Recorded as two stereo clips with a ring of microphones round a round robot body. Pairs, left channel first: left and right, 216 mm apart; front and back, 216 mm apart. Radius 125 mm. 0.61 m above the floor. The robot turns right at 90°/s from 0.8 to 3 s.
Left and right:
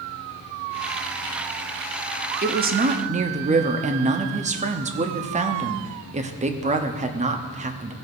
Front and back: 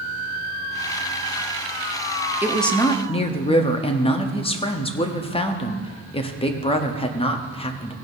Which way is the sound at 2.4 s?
105° right.